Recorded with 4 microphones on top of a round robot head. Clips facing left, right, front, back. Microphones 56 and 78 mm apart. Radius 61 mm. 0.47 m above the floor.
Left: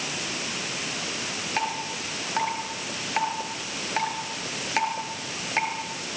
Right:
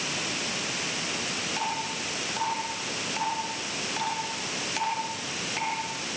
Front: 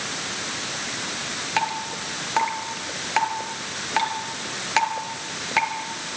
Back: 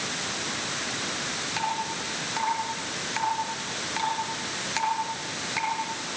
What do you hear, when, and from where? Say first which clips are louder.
1.6 s dripping: left 4 dB, front 4 dB; 30° left, 3.5 m